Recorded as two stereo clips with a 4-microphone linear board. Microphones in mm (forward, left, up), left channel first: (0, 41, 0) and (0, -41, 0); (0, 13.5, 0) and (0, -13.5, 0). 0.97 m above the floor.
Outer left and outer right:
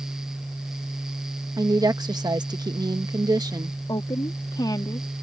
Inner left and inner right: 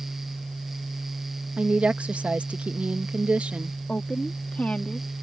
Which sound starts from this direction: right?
A woman speaking, at 1.6 s.